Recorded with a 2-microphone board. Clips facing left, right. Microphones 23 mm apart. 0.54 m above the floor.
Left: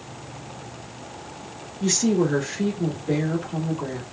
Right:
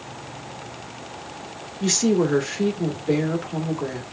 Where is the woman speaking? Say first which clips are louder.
Right 1 dB; 40° right (ahead or behind), 1.1 m.